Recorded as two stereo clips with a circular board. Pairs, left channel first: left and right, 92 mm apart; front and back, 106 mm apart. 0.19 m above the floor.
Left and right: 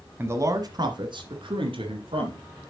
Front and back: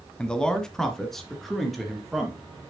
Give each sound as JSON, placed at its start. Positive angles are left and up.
{"t": 0.2, "sound": "a man speaking", "azimuth_deg": -65, "distance_m": 1.1}